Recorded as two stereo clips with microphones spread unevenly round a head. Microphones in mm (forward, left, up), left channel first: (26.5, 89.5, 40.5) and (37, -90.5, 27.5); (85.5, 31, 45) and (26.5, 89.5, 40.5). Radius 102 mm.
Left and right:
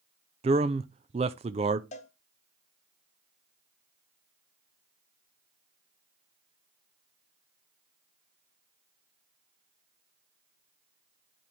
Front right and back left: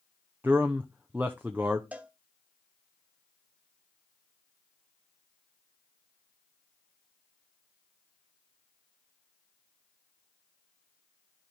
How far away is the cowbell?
About 0.9 m.